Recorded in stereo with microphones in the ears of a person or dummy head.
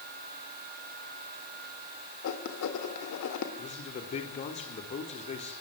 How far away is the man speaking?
About 4 m.